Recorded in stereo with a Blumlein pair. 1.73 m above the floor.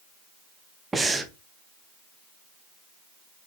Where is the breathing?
10° right, 0.8 m.